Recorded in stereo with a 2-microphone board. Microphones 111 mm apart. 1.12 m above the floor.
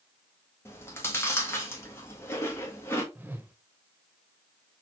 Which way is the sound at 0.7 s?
20° left (ahead or behind).